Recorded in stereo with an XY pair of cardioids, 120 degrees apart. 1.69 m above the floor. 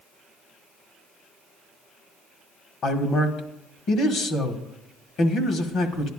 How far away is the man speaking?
About 1.5 m.